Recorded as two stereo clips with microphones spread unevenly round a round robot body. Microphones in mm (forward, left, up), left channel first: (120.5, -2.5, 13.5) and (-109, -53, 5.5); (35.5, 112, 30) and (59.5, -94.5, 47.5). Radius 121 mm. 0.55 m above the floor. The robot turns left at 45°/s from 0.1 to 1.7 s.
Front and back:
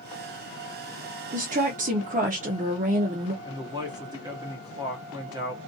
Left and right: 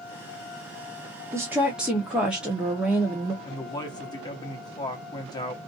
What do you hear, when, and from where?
1.3 s a woman speaking: 155° right, 0.8 m; by 3.3 s 175° right, 0.8 m
3.4 s a man speaking: 140° left, 1.0 m